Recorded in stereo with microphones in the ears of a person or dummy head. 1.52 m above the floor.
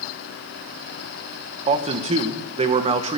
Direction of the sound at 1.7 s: 40° right (ahead or behind).